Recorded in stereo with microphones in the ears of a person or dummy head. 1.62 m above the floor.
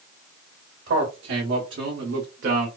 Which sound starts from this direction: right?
A man speaking, at 0.9 s.